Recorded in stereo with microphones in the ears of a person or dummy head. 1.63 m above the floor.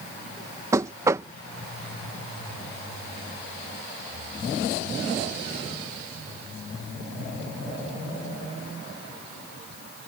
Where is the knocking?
20° right (ahead or behind).